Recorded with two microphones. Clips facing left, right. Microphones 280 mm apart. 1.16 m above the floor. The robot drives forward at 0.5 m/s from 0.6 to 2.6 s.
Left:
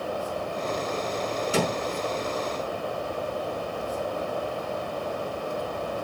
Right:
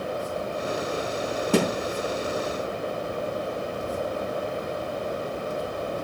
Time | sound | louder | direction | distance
1.5 | a thud | right 5 dB | 65° right (ahead or behind) | 4.5 m